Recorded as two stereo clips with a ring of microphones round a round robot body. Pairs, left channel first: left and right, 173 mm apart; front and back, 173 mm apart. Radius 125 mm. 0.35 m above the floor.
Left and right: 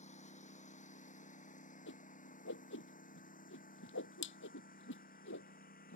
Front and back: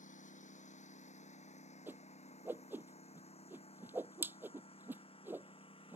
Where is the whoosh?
100° left.